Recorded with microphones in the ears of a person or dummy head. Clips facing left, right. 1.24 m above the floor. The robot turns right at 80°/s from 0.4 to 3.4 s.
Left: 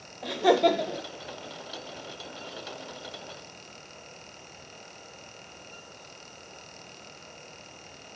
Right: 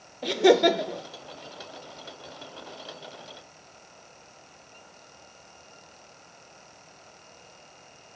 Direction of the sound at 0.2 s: 40° right.